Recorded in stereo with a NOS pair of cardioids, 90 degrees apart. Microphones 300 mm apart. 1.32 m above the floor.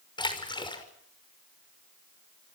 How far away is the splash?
About 5.5 m.